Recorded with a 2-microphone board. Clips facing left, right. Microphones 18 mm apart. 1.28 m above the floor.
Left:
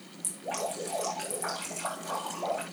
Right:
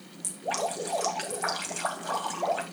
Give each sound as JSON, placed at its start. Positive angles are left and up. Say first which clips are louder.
{"t": 0.2, "sound": "dripping", "louder": "right 4 dB", "side_deg": -30, "distance_m": 2.5}